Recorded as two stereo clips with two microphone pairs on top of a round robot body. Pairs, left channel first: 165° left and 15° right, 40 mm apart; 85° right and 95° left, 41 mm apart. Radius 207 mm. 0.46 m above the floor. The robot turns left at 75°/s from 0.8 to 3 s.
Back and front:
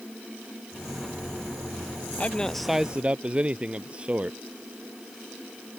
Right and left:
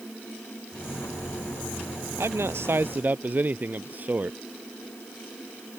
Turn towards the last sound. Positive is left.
turn(degrees=50)